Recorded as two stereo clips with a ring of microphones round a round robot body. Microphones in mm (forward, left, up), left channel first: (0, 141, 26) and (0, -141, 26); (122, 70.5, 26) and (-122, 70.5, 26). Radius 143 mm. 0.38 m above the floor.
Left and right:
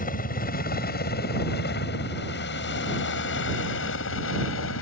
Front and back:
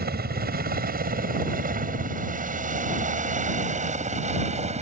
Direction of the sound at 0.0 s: 145° left.